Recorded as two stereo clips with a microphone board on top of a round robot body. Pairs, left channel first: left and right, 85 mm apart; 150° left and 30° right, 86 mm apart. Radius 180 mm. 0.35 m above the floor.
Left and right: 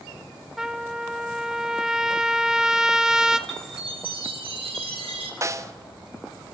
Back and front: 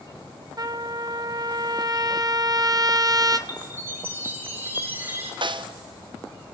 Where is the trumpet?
10° right, 1.8 m.